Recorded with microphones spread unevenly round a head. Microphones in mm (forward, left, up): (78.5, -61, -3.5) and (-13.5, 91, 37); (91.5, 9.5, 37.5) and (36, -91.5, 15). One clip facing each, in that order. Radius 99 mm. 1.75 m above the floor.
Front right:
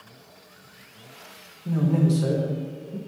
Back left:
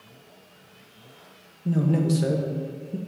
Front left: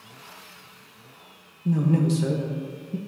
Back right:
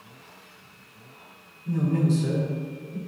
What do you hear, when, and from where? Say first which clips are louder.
1.6 s a man speaking: even, front left 2 dB; 60° left, 1.3 m